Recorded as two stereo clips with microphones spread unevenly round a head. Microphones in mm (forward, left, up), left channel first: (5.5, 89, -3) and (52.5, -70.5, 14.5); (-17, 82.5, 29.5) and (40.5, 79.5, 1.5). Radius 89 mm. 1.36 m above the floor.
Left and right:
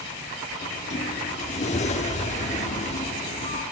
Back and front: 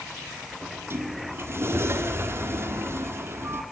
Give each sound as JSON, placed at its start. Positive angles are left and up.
{"t": 0.6, "sound": "a sliding door", "azimuth_deg": 55, "distance_m": 1.9}